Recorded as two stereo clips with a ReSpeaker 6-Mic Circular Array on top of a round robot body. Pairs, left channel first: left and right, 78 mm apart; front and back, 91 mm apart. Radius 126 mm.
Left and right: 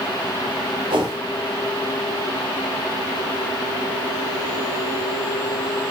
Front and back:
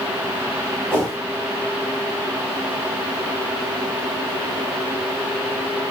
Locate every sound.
0.9 s a whoosh: 70° right, 0.9 m